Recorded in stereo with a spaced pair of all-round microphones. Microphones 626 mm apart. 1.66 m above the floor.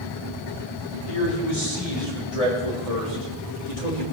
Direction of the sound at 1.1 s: 55° left (ahead or behind).